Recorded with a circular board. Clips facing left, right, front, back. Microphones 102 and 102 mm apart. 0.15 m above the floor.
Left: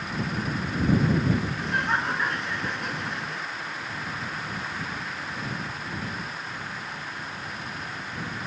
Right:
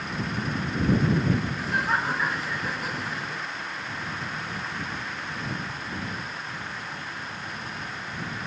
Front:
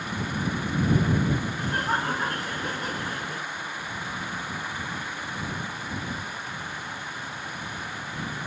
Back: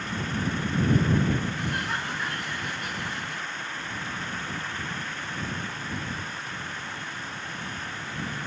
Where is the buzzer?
No buzzer in this recording.